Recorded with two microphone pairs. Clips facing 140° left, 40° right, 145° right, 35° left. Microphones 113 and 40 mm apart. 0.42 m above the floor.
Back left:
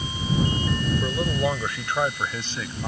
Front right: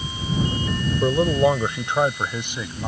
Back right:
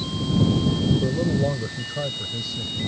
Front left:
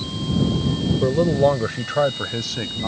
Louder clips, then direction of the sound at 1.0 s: Front right 12 dB, front left 6 dB; 10° left.